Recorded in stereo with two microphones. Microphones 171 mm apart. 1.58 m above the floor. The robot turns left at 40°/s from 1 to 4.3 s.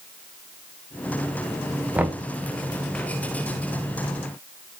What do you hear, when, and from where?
1.9 s knocking: 5° right (ahead or behind), 0.9 m; by 2.2 s 15° right (ahead or behind), 0.9 m